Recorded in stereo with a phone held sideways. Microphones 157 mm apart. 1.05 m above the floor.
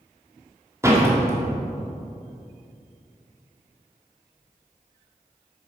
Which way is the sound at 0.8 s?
15° right (ahead or behind).